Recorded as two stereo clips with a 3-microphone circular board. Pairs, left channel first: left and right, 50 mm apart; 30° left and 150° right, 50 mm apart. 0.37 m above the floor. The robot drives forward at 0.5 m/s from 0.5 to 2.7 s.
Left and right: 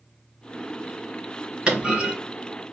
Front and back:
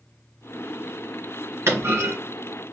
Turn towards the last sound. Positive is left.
turn(degrees=-165)